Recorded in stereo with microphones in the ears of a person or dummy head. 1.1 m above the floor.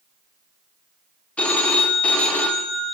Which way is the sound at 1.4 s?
10° left (ahead or behind).